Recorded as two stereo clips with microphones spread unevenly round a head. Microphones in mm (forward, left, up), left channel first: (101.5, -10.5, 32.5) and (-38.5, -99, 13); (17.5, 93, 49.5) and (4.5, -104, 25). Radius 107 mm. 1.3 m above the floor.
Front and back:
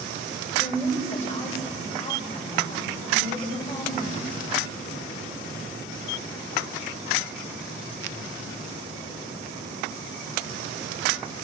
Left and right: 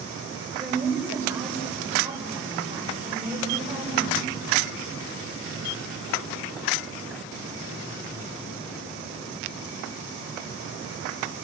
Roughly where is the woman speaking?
Ahead.